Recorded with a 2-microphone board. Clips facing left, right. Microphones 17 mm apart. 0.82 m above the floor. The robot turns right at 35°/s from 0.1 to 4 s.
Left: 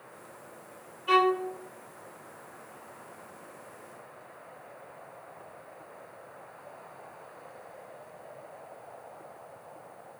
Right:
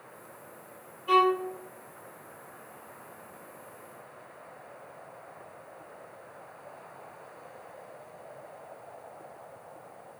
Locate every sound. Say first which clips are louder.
1.1 s a violin: right 1 dB; 40° left (ahead or behind), 0.6 m; by 1.5 s 30° left (ahead or behind), 0.6 m